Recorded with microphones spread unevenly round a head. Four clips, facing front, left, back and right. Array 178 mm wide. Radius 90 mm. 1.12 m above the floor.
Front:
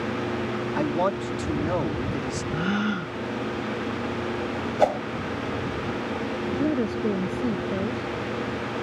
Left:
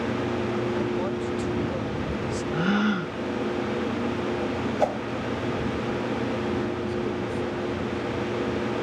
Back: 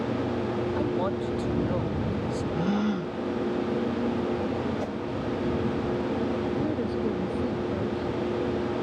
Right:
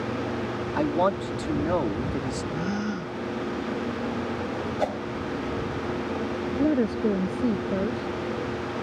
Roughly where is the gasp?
Behind left.